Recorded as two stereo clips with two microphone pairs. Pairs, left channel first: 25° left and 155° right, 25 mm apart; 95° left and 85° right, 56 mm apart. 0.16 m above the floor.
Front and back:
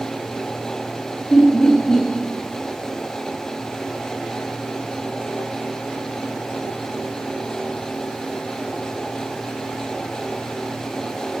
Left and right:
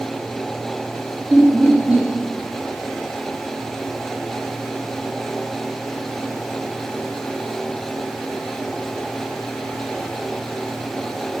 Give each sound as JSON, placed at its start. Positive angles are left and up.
{"t": 1.3, "sound": "laughter", "azimuth_deg": -25, "distance_m": 3.0}